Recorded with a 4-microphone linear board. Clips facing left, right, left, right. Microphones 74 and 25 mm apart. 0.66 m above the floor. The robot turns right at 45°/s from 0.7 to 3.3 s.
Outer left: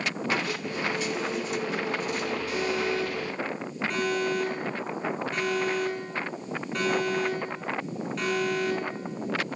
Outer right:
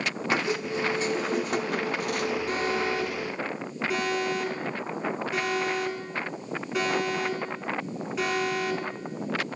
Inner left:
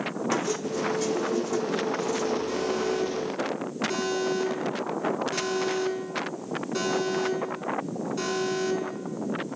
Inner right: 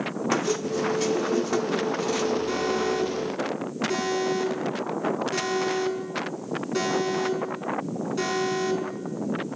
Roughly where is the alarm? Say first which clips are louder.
Outer right 1 dB, inner right 2 dB; right.